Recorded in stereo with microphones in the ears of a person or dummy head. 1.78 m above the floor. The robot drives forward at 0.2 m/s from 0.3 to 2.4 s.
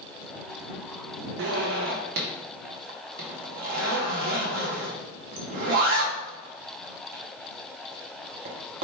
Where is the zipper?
70° right (ahead or behind), 0.5 m; by 8.8 s 55° right (ahead or behind), 0.6 m.